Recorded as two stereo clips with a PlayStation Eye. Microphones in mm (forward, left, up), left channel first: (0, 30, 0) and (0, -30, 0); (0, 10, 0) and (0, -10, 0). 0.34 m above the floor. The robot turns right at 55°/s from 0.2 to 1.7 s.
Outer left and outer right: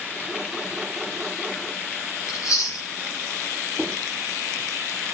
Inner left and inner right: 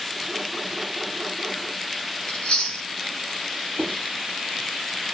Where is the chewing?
55° left (ahead or behind), 2.5 m.